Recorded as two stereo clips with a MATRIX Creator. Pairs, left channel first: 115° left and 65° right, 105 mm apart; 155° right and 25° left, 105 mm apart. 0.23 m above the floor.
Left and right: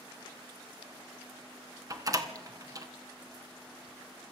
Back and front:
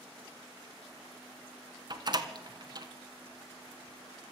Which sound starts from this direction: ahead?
A door slam, at 1.9 s.